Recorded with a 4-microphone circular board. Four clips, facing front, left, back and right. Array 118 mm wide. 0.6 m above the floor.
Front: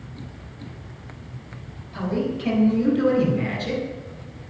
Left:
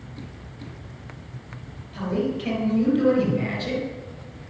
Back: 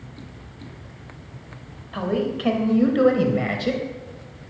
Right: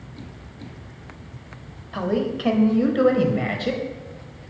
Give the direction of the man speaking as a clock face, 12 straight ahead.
4 o'clock.